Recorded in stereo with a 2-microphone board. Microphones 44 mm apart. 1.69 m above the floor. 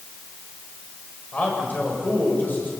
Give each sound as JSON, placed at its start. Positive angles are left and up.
{"t": 1.3, "sound": "a man speaking", "side_deg": 45, "distance_m": 9.0}